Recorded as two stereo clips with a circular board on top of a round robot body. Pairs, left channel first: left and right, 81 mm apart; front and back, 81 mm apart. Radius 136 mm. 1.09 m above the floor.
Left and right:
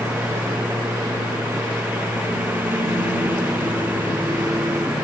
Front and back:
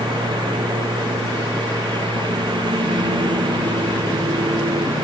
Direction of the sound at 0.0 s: 160° right.